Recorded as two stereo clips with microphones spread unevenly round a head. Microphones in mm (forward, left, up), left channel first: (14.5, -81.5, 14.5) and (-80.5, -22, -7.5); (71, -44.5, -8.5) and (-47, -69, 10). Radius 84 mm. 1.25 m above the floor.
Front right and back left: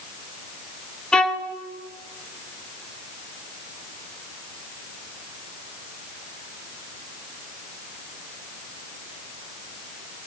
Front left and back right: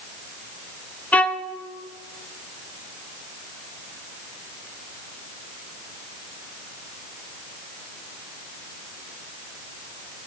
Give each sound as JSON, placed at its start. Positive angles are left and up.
{"t": 1.1, "sound": "a violin", "azimuth_deg": -75, "distance_m": 0.6}